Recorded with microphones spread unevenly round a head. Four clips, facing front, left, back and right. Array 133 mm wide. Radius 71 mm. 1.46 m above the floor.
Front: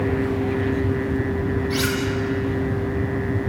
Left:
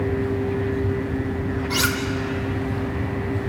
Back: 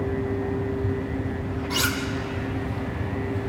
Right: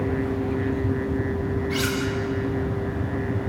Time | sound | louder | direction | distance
1.7 | cutlery clinking | left 4 dB, front 4 dB | 145° left | 2.5 m